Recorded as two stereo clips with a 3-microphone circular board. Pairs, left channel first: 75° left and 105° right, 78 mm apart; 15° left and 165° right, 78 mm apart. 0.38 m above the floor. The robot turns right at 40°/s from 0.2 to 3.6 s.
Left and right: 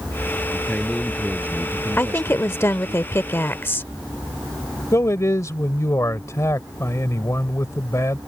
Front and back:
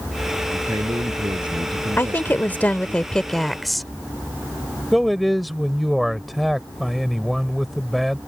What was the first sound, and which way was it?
A man speaking, 150° left.